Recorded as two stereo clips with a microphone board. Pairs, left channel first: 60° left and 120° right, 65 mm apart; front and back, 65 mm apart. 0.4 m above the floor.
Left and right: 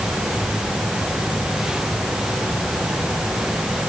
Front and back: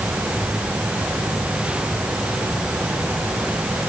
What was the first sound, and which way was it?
Only background noise.